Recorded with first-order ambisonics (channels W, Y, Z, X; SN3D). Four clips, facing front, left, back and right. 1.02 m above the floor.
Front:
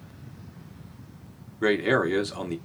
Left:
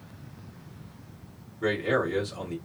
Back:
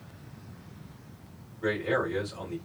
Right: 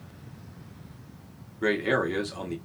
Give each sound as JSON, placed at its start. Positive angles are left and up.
{"t": 1.6, "sound": "a man speaking", "azimuth_deg": -15, "distance_m": 1.5}